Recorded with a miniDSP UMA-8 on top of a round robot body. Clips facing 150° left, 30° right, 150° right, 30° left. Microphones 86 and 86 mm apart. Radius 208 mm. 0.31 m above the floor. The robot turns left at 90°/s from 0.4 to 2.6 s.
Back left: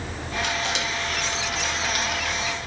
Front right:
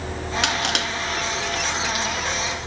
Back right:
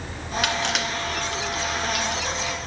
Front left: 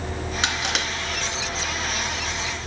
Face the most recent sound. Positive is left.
turn(degrees=135)